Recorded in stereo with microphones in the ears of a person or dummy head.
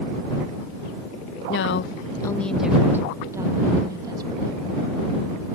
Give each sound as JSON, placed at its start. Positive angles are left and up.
{"t": 1.5, "sound": "a woman speaking", "side_deg": 60}